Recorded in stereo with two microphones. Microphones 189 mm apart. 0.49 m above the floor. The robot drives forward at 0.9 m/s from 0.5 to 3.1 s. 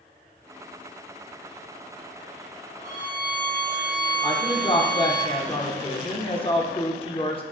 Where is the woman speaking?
30° left (ahead or behind), 0.9 m.